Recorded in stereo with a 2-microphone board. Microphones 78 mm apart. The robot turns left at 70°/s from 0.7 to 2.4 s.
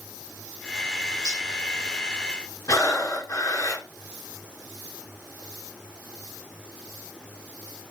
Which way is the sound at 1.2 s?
50° left (ahead or behind).